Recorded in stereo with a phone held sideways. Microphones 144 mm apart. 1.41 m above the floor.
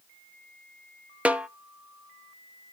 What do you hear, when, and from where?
1.2 s a snare drum: 10° right (ahead or behind), 0.5 m